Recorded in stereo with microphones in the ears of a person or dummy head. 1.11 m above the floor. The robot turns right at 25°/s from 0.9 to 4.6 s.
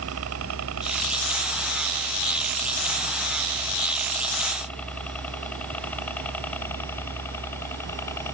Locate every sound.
0.0 s a helicopter: 75° right (ahead or behind); by 8.3 s 15° left (ahead or behind)